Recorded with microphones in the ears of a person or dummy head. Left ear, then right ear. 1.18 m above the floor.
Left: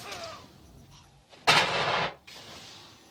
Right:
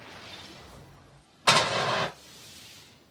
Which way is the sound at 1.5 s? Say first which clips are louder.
Even; 60° right (ahead or behind).